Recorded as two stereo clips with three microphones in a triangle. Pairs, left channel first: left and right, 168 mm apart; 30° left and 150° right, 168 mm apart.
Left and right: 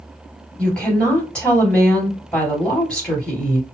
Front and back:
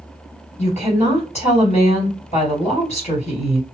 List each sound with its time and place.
0.6 s a woman speaking: 10° left, 2 m